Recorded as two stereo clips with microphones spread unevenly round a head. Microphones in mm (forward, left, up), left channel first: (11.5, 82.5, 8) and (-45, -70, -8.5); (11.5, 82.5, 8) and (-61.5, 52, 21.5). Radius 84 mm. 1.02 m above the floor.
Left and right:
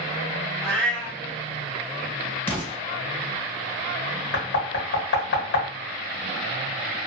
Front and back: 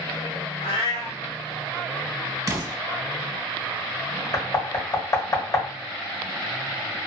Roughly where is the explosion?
Behind left.